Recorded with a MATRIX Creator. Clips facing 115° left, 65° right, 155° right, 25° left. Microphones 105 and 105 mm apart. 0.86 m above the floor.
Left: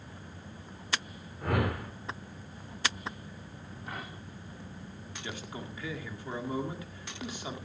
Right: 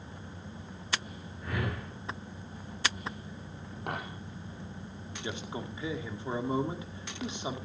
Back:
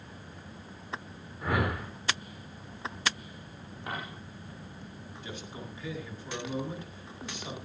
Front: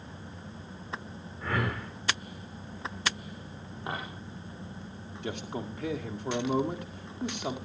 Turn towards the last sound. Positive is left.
turn(degrees=0)